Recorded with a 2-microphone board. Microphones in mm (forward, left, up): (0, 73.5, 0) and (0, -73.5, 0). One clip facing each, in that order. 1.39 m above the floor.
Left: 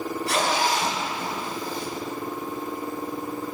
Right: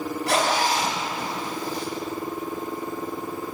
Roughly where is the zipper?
Right.